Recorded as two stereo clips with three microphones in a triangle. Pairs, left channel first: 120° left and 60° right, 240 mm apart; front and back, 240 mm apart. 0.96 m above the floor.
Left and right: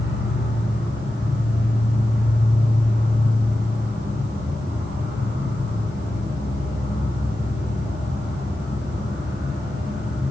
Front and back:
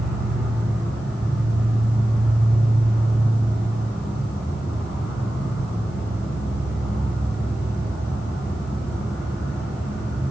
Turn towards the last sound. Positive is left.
turn(degrees=-85)